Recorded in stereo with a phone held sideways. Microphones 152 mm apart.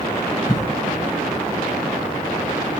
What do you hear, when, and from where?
0.5 s a cough: 25° left (ahead or behind), 0.7 m